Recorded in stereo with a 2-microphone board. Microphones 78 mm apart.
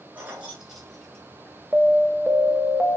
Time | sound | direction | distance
0.1 | keys jangling | 20° right (ahead or behind) | 1.9 m
1.7 | an alarm | 10° right (ahead or behind) | 0.9 m